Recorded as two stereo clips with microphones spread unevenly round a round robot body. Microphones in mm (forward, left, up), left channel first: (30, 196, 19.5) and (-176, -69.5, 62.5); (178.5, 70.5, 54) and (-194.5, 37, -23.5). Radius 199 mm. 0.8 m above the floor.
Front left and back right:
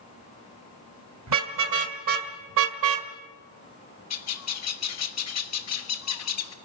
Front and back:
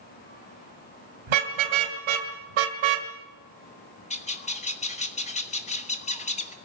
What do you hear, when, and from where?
1.3 s a car horn: 170° right, 3 m; by 3.1 s 150° right, 1.9 m
4.1 s a bird: 85° left, 1.7 m